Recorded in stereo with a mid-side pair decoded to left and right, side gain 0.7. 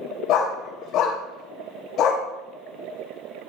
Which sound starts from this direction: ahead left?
A dog barking, at 0.3 s.